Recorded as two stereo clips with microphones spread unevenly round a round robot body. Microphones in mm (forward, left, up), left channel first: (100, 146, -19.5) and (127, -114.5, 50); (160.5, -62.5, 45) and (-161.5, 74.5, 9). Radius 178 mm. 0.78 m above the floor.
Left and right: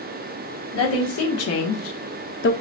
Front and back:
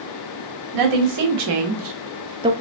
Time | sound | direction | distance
0.7 | a woman speaking | 130° left | 1.5 m